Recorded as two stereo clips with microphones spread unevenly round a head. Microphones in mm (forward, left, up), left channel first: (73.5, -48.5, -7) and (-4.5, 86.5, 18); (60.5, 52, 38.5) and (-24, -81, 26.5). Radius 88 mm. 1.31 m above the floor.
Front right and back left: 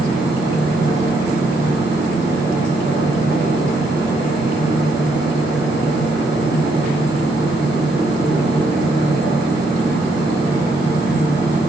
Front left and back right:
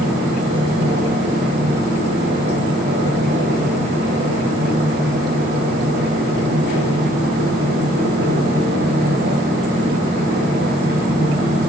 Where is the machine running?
155° right, 7 m.